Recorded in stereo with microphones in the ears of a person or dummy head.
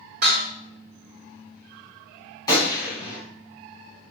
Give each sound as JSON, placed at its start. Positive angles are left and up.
{"t": 0.2, "sound": "dishes clattering", "side_deg": -50, "distance_m": 1.6}
{"t": 2.5, "sound": "a gunshot", "side_deg": 15, "distance_m": 1.9}